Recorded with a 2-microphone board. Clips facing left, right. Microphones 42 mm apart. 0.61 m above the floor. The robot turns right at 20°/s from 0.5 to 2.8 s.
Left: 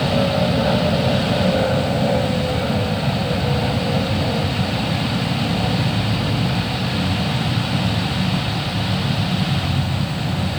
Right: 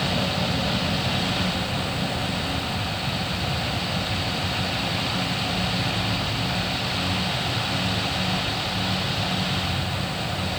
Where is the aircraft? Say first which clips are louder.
Left 7 dB; 40° left (ahead or behind); by 10.6 s 70° left (ahead or behind).